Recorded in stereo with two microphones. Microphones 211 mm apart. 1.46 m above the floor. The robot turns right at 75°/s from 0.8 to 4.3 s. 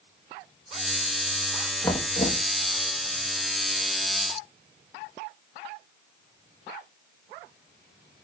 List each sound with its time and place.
1.8 s knocking: 15° left, 1.3 m; by 2.5 s 60° left, 1.3 m